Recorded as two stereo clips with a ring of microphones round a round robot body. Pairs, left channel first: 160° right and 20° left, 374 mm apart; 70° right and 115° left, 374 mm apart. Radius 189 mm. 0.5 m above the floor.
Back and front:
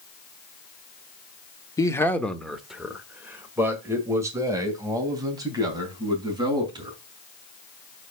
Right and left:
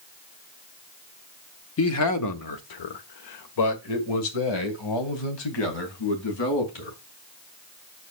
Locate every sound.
1.8 s a man speaking: 85° right, 0.9 m; by 7.0 s 55° right, 4 m